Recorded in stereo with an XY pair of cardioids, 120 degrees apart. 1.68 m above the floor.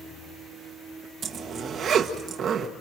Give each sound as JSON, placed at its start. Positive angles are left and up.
{"t": 1.2, "sound": "a zipper", "azimuth_deg": -55, "distance_m": 1.7}